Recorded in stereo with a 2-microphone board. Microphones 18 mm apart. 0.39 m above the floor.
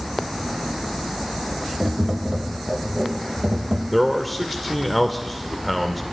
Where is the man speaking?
5° left (ahead or behind), 0.8 m.